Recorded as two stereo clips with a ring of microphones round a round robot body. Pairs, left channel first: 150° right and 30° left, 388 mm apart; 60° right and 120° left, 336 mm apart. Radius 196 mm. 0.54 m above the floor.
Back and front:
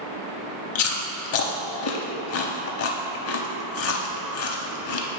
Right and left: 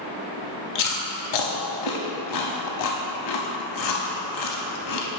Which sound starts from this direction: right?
Chewing, at 0.8 s.